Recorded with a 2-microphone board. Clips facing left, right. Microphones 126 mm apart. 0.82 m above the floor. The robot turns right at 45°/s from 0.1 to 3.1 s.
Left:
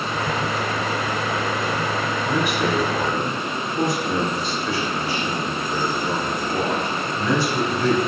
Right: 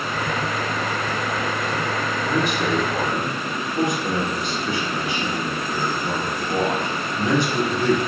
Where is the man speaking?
160° left, 4 m; by 8.0 s 160° right, 4 m.